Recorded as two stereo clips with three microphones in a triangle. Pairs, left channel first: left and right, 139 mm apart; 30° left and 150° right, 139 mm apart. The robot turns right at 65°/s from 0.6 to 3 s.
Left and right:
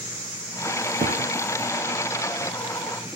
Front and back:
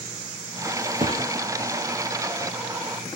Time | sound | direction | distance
1.0 | a thud | 115° right | 3 m